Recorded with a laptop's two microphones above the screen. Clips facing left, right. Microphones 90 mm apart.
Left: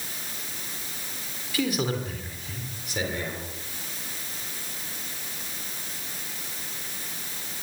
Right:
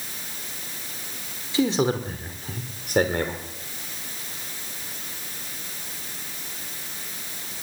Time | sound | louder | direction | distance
1.5 | a man speaking | right 5 dB | 25° right (ahead or behind) | 3 m